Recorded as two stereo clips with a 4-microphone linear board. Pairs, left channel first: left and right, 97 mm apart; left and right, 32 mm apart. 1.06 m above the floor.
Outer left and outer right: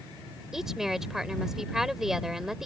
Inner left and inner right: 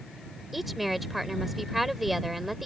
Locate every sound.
0.5 s a woman speaking: 5° right (ahead or behind)